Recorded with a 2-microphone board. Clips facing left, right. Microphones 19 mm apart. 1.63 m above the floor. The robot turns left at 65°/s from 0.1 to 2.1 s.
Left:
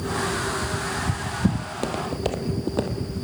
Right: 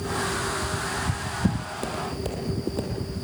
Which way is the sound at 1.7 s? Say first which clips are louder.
Left 3 dB; 20° left (ahead or behind).